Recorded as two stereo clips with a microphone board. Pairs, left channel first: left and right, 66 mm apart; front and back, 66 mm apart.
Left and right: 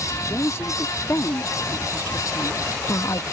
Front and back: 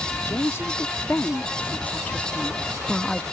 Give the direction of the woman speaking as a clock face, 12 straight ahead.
10 o'clock.